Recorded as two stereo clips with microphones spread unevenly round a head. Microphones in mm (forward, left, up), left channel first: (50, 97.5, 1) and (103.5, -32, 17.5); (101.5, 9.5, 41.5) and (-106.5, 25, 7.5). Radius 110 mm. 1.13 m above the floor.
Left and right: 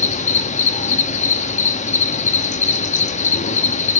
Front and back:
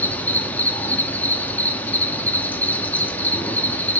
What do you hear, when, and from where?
0.0 s an insect: 75° left, 0.9 m